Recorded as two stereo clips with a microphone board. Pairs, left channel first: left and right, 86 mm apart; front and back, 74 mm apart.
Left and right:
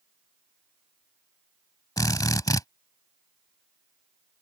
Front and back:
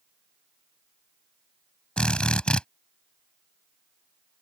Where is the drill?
70° left.